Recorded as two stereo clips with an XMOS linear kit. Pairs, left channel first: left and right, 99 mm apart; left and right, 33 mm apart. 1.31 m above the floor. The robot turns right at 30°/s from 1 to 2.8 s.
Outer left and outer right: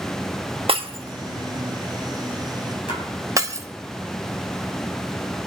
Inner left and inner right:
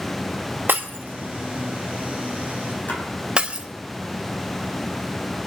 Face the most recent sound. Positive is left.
turn(degrees=60)  # may be behind; listen again after turning